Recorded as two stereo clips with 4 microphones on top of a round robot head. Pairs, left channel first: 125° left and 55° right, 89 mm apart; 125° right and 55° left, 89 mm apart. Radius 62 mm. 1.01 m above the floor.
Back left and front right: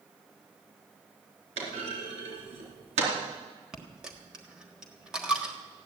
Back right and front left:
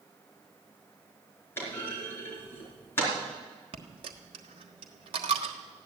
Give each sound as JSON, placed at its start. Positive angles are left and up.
{"t": 1.6, "sound": "a clunk", "azimuth_deg": -55, "distance_m": 4.0}
{"t": 3.7, "sound": "a dropped coin", "azimuth_deg": 25, "distance_m": 1.3}